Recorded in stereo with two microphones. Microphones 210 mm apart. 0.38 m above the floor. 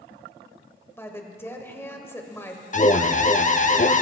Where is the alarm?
35° left (ahead or behind), 0.5 m.